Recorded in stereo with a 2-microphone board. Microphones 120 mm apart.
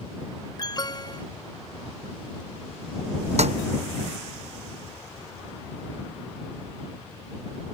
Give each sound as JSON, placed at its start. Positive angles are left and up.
{"t": 0.6, "sound": "an alarm", "side_deg": 35}
{"t": 3.4, "sound": "a snare drum", "side_deg": -65}